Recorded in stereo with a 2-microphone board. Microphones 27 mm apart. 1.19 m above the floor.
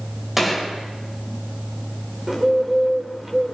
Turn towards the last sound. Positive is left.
turn(degrees=-10)  # may be behind; listen again after turning